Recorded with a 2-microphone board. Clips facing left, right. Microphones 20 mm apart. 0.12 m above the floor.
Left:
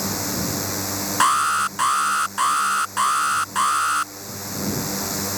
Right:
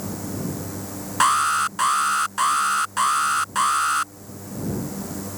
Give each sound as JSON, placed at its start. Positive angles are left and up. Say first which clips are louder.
{"t": 0.0, "sound": "a drone", "louder": "left 4 dB", "side_deg": 65}
{"t": 1.2, "sound": "an alarm", "louder": "even", "side_deg": 5}